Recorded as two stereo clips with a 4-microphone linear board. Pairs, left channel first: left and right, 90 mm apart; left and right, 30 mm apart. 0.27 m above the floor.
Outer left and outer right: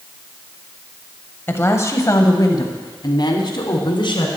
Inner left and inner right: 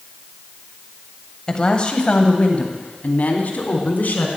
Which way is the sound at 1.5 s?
25° left (ahead or behind).